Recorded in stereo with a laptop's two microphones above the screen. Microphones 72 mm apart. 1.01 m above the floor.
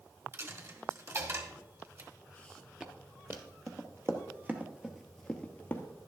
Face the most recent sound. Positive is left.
turn(degrees=25)  # may be behind; listen again after turning